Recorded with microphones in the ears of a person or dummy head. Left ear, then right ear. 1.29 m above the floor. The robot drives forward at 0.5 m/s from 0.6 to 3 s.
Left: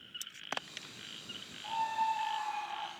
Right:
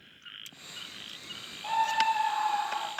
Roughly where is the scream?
Right.